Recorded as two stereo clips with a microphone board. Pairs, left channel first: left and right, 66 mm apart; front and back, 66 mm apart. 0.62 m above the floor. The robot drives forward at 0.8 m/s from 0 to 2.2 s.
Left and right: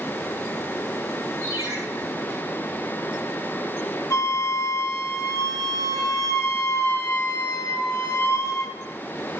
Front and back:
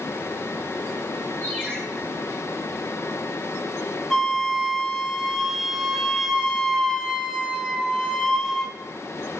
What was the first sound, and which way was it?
A ringtone, 70° right.